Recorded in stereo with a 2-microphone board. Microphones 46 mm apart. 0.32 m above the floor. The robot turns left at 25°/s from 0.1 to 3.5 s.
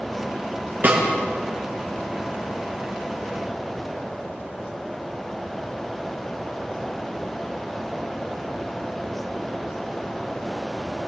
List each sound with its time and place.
0.8 s a snare drum: 45° right (ahead or behind), 5 m; by 1.0 s 40° right (ahead or behind), 5 m